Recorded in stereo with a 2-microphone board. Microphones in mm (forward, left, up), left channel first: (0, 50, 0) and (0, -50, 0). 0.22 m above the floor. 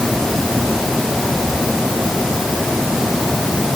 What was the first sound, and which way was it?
Only background noise.